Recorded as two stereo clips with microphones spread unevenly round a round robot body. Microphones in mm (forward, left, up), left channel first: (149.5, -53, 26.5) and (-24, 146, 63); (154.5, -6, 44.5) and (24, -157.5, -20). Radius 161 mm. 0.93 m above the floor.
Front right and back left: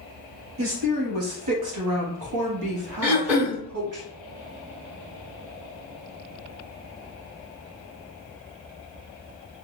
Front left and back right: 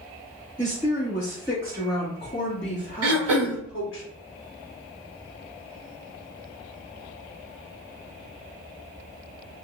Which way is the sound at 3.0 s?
145° right.